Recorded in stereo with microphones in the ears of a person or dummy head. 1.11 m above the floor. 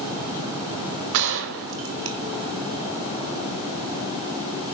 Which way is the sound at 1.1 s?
55° right (ahead or behind).